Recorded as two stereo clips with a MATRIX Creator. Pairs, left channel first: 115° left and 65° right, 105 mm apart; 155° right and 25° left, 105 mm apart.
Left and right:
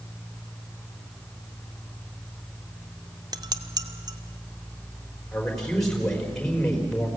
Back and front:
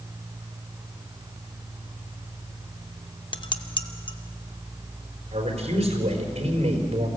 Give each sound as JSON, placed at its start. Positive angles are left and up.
{"t": 3.3, "sound": "dishes clattering", "azimuth_deg": -120, "distance_m": 0.9}
{"t": 5.3, "sound": "a man speaking", "azimuth_deg": 30, "distance_m": 4.5}